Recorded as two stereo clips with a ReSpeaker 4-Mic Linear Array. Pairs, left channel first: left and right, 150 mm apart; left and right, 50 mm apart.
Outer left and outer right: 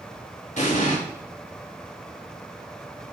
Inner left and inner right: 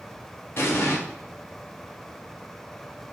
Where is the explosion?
50° left (ahead or behind), 0.7 m.